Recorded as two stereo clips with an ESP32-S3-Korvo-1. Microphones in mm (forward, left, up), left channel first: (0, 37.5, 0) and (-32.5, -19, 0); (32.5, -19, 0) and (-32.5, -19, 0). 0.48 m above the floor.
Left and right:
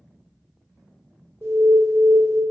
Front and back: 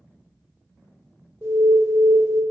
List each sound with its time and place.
1.4 s an alarm: 150° right, 1.2 m